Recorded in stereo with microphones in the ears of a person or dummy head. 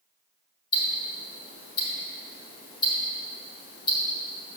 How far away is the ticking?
About 2 m.